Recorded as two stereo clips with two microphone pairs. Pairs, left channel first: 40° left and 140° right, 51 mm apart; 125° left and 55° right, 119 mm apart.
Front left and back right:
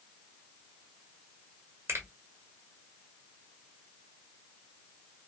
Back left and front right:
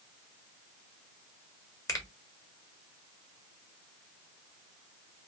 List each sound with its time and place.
1.9 s a finger snap: 175° right, 1.7 m